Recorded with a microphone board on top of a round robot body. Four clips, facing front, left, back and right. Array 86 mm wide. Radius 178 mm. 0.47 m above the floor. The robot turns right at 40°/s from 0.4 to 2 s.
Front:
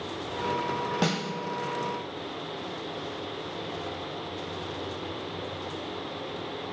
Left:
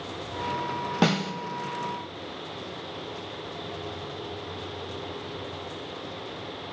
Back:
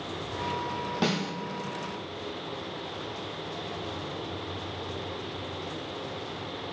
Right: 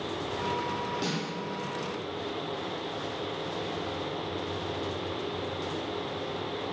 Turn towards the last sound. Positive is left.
turn(degrees=120)